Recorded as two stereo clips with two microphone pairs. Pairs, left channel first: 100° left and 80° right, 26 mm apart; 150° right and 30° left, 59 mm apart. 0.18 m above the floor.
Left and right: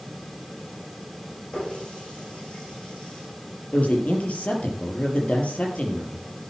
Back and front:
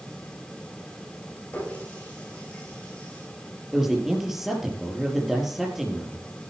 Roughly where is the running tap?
Behind left.